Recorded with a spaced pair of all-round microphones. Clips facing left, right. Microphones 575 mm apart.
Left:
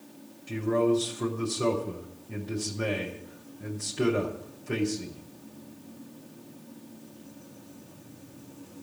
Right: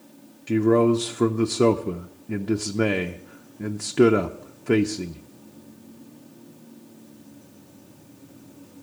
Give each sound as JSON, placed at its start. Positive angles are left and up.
{"t": 0.5, "sound": "a man speaking", "side_deg": -75, "distance_m": 0.8}